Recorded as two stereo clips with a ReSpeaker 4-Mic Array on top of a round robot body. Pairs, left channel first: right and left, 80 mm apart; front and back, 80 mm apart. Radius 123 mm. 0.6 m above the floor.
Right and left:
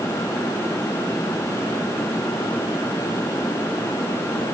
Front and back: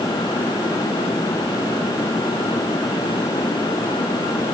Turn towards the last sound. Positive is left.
No sound to turn to.